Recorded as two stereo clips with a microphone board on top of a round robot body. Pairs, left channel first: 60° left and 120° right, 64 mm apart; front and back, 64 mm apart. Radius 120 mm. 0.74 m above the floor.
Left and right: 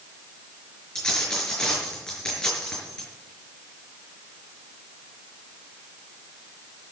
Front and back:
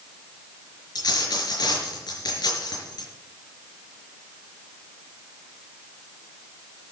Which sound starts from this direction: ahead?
A dropped coin, at 0.9 s.